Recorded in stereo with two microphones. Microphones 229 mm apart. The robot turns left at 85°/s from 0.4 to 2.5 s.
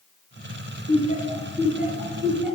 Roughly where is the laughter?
Left.